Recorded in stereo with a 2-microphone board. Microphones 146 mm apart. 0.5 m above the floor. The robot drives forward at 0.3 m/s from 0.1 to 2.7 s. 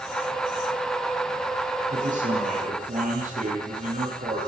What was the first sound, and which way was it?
A man speaking, 60° right (ahead or behind).